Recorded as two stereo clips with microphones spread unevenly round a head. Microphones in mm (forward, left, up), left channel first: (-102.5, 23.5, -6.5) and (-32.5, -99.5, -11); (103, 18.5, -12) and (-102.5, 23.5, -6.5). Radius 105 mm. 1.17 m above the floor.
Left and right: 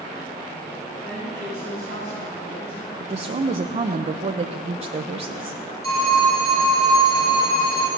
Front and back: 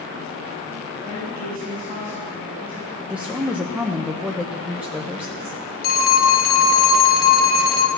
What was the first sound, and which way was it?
A woman speaking, 115° left.